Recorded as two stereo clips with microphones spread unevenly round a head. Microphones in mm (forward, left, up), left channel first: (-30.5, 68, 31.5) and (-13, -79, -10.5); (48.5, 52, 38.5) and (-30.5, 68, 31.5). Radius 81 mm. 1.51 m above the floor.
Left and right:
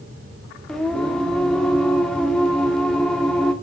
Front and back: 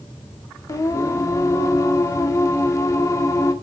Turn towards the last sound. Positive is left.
turn(degrees=25)